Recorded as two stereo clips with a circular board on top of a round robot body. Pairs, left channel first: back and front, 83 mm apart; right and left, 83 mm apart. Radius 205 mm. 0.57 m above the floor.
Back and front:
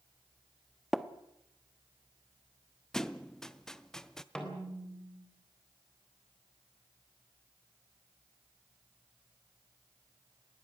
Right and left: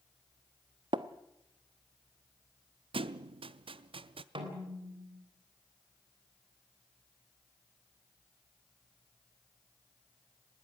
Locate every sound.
0.9 s tapping: 90° left, 1.2 m
2.9 s a thud: 95° left, 0.6 m
4.3 s a snare drum: 100° left, 3.5 m